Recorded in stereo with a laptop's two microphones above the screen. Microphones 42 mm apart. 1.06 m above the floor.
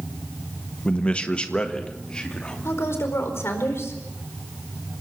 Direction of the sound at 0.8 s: 25° left (ahead or behind).